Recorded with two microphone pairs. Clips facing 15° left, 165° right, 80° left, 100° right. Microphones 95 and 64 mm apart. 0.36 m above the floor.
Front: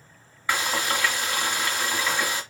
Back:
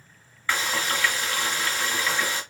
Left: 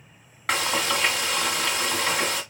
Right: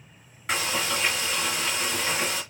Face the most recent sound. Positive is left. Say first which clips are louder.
# front 1 dB, left 3 dB
turn(degrees=90)